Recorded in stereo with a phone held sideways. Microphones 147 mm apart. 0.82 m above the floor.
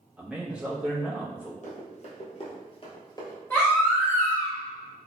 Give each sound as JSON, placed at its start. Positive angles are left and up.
{"t": 0.2, "sound": "a man speaking", "side_deg": -5, "distance_m": 0.7}
{"t": 1.6, "sound": "running footsteps", "side_deg": 55, "distance_m": 1.4}
{"t": 3.5, "sound": "a baby crying", "side_deg": 15, "distance_m": 1.1}